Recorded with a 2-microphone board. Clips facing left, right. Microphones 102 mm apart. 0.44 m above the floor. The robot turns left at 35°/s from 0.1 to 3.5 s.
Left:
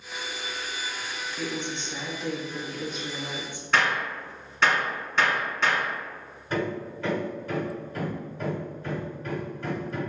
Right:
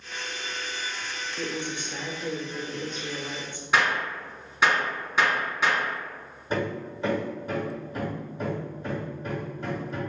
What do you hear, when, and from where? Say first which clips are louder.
1.4 s a woman speaking: even; 15° right (ahead or behind), 0.8 m; by 3.6 s 15° left (ahead or behind), 0.8 m
3.7 s a gunshot: even; 10° right (ahead or behind), 1.2 m
6.5 s hammering: even; 20° right (ahead or behind), 1.5 m